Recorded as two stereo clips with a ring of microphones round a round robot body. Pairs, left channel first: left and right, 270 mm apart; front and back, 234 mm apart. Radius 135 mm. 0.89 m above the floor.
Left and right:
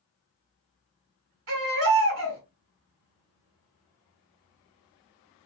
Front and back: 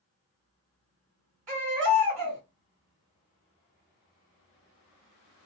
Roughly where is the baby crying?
Behind right.